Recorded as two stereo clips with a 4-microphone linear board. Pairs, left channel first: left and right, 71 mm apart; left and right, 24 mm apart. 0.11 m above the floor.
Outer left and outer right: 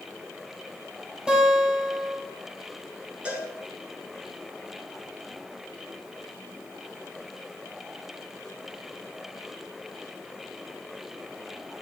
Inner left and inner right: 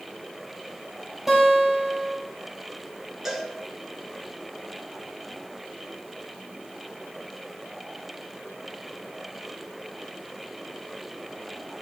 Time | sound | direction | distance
1.3 | a guitar | 15° right (ahead or behind) | 2.5 m
3.2 | a cowbell | 20° right (ahead or behind) | 1.8 m